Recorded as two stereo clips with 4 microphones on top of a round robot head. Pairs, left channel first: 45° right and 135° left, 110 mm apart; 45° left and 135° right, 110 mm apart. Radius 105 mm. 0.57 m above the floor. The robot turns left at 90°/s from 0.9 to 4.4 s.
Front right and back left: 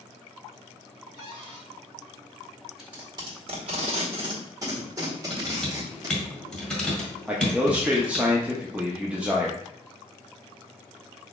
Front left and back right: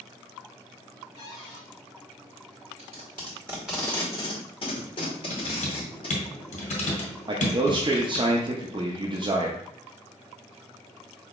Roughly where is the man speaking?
Behind right.